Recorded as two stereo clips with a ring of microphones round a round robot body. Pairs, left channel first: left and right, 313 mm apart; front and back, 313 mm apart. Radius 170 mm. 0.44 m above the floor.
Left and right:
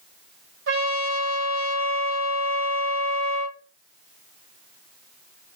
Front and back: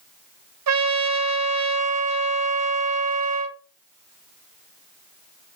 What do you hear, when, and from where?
0.7 s a trumpet: 145° right, 0.5 m